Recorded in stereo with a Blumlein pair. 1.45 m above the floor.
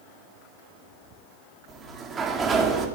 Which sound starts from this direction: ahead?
A sliding door, at 1.7 s.